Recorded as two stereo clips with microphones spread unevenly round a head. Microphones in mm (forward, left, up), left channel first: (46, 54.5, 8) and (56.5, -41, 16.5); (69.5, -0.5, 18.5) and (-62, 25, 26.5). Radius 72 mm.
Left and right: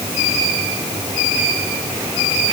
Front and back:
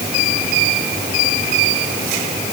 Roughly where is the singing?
I don't hear singing.